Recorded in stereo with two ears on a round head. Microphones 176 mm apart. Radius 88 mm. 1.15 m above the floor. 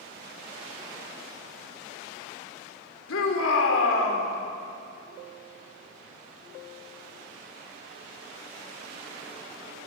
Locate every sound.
3.1 s a shout: 80° left, 4.5 m